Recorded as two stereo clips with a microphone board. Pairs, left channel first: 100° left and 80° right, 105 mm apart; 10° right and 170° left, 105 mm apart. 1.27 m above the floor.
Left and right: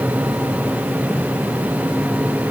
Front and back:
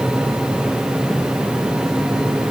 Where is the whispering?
No whispering in this recording.